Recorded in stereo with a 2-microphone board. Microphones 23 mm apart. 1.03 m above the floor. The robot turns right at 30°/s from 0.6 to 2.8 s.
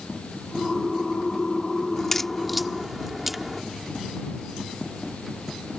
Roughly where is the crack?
Left.